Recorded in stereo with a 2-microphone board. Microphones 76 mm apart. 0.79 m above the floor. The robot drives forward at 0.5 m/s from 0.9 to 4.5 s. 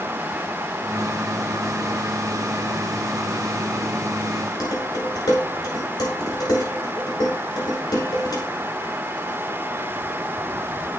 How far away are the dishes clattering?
About 7.5 m.